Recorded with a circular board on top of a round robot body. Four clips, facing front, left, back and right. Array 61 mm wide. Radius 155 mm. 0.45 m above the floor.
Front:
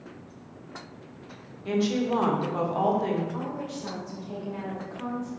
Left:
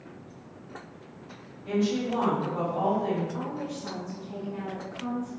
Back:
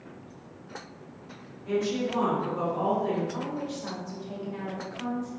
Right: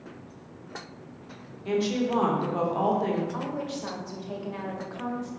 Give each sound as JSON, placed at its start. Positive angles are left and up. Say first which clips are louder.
{"t": 1.6, "sound": "a woman speaking", "louder": "right 1 dB, front 2 dB", "azimuth_deg": -40, "distance_m": 2.0}
{"t": 3.3, "sound": "a woman speaking", "louder": "right 2 dB, even", "azimuth_deg": -95, "distance_m": 2.0}